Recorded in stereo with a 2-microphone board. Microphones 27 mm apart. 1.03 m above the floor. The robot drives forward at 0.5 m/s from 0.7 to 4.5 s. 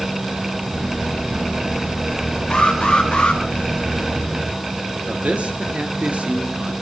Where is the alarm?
35° left (ahead or behind), 3.5 m; by 3.4 s 40° left (ahead or behind), 3.5 m.